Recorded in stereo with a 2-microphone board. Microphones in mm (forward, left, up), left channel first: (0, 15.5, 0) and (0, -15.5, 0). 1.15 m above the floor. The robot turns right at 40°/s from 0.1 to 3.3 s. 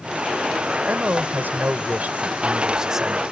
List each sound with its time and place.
0.8 s a man speaking: 100° right; by 3.2 s 5° right